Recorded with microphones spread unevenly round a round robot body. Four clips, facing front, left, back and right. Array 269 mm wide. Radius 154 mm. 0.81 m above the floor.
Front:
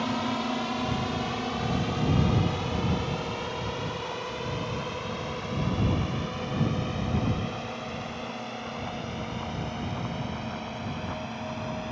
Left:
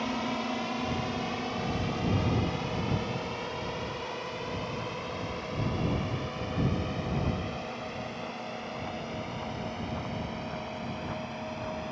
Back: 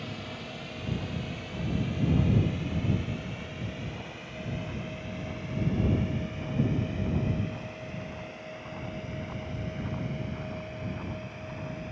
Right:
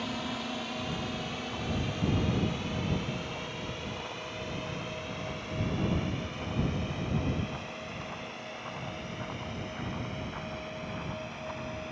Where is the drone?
20° left.